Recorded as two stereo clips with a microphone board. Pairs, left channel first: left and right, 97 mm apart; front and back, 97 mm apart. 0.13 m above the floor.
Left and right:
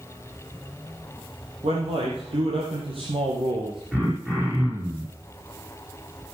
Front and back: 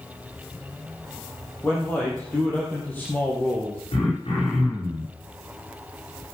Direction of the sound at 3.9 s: 10° right.